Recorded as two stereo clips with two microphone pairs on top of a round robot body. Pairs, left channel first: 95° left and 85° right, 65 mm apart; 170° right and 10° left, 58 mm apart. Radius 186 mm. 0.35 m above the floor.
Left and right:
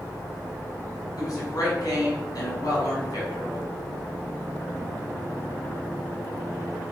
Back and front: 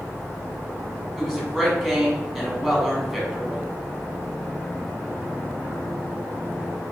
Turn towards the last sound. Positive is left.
turn(degrees=100)